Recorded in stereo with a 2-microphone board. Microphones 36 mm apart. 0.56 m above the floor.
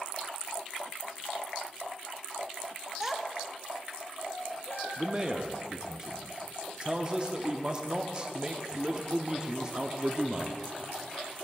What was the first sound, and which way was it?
A child speaking, 15° right (ahead or behind).